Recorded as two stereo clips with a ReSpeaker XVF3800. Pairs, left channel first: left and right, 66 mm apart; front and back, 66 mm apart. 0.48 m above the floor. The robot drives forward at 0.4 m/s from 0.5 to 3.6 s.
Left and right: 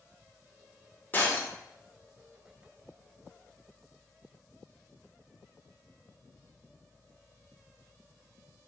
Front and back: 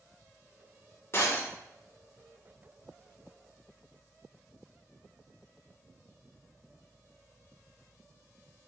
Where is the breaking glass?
35° left, 0.8 m; by 1.5 s 40° left, 0.7 m.